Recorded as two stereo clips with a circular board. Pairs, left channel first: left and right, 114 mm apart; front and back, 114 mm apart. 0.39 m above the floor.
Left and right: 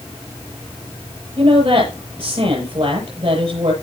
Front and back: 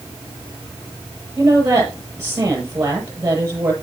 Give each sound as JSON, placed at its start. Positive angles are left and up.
{"t": 1.4, "sound": "a woman speaking", "azimuth_deg": -115, "distance_m": 8.0}